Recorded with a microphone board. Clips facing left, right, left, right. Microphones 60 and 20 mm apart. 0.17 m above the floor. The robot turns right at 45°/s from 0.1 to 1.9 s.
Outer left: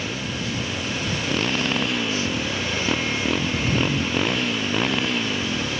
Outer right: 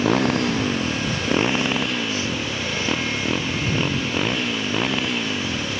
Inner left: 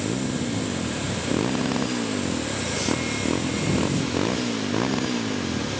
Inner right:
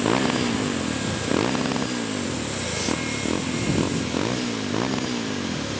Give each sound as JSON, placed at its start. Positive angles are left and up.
{"t": 0.0, "sound": "a motorcycle", "side_deg": -75}